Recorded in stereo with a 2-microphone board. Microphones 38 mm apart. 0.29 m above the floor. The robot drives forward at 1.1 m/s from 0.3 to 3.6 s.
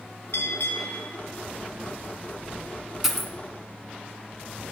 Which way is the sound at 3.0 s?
5° right (ahead or behind).